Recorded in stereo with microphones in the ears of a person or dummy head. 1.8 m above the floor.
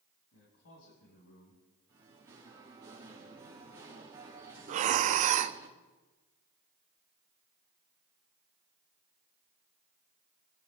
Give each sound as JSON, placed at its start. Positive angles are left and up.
{"t": 0.3, "sound": "a man speaking", "side_deg": 80, "distance_m": 6.0}
{"t": 1.9, "sound": "singing", "side_deg": -15, "distance_m": 2.0}
{"t": 4.7, "sound": "breathing", "side_deg": -40, "distance_m": 0.6}